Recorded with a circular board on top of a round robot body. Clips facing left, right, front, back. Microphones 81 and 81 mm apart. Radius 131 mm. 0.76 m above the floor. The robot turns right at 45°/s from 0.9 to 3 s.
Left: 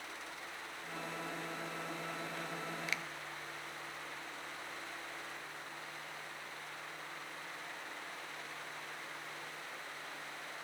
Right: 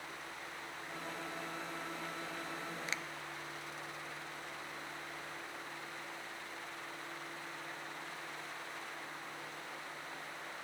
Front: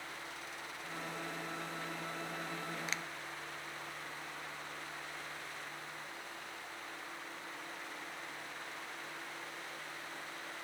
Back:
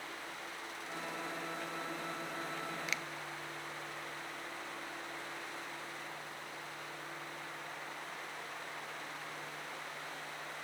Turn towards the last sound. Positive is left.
turn(degrees=-35)